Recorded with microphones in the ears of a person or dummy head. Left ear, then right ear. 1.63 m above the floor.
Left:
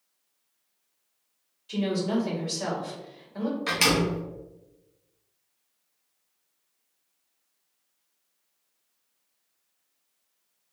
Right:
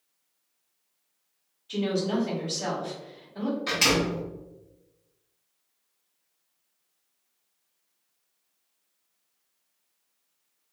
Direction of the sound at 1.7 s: 65° left (ahead or behind).